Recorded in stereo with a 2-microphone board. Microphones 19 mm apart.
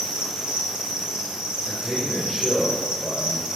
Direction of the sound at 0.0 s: 65° right (ahead or behind).